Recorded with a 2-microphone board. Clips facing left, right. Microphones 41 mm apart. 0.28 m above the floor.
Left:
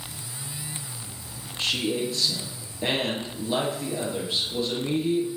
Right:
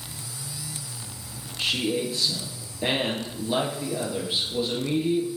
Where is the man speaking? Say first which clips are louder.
Right 1 dB; 10° right (ahead or behind), 4 m.